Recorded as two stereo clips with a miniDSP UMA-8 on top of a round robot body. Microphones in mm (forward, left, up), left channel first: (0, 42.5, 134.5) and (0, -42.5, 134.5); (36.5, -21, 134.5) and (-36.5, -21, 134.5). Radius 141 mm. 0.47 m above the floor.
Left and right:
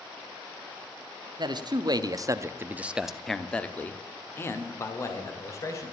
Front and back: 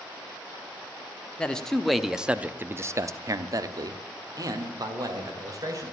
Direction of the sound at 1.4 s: 75° right.